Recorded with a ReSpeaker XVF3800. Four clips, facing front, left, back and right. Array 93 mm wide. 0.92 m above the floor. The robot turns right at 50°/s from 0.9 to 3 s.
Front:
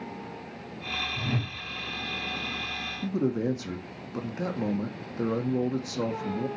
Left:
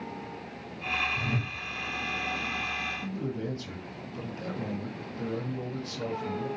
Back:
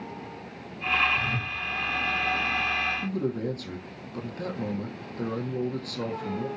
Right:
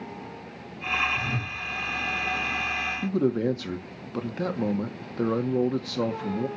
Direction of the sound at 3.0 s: 75° right.